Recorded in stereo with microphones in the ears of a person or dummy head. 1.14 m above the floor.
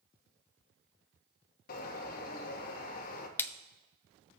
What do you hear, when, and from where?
1.7 s a bird: 55° left (ahead or behind), 1.3 m
3.4 s a splash: 10° left (ahead or behind), 0.5 m